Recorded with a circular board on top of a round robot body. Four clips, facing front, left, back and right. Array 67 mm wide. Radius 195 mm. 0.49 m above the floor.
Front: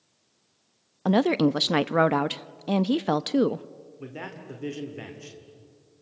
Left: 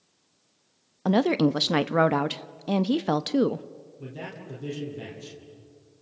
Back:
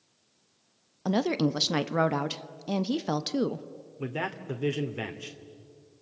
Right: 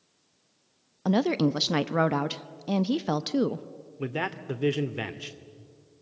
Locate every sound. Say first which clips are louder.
1.1 s a woman speaking: left 2 dB, front 5 dB; 25° left, 0.8 m
4.0 s a man speaking: right 8 dB, back 6 dB; 115° right, 2 m